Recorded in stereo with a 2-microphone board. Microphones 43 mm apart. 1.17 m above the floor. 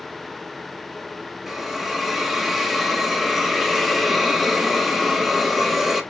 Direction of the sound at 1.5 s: Centre (ahead or behind).